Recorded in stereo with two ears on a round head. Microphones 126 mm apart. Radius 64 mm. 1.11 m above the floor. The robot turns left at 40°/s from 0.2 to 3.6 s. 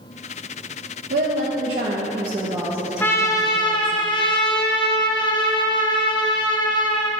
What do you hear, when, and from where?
1.1 s a woman speaking: 105° right, 1.3 m; by 4.0 s 155° left, 1.3 m
3.0 s a trumpet: 15° left (ahead or behind), 1.1 m; by 7.1 s 30° left (ahead or behind), 1.1 m